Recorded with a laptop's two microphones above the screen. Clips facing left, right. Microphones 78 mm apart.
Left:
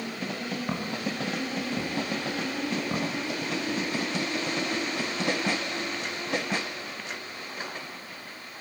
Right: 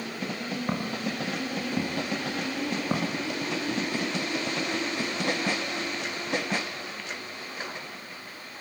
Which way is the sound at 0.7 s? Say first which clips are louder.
Right 2 dB; 10° right (ahead or behind).